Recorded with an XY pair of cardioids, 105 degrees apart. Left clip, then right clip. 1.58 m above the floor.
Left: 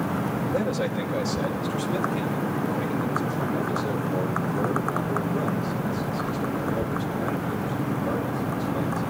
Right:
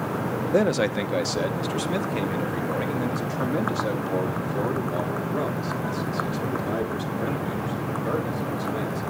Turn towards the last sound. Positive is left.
turn(degrees=-65)